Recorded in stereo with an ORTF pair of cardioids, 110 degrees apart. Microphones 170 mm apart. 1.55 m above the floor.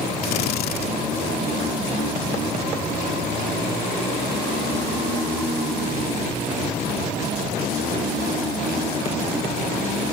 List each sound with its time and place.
0.2 s a drill: 65° left